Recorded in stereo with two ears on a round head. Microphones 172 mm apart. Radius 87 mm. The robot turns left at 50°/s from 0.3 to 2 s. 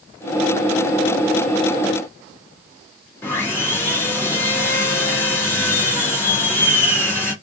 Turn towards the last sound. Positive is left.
turn(degrees=10)  # may be behind; listen again after turning